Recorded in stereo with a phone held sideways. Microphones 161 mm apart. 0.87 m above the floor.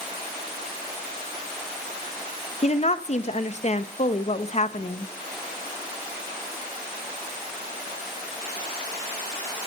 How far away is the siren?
I don't hear a siren.